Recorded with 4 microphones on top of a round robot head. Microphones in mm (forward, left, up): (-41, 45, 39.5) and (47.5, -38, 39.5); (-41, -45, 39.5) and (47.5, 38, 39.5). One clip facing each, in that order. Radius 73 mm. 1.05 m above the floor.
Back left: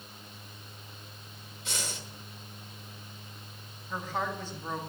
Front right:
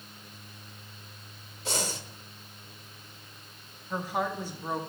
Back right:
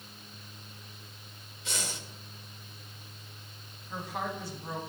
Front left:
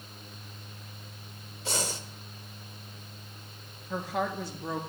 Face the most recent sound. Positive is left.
turn(degrees=35)